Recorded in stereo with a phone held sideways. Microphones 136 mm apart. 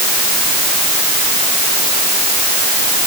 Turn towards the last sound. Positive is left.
No sound to turn to.